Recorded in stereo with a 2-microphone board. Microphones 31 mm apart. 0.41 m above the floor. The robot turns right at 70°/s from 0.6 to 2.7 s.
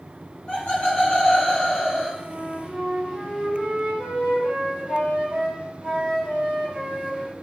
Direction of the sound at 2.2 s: 175° right.